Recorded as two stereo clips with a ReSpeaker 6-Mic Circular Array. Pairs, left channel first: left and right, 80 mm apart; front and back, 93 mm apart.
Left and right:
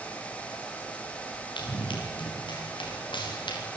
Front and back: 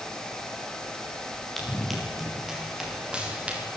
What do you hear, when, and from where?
1.6 s running footsteps: 85° left, 8.5 m; by 3.6 s 105° left, 8.5 m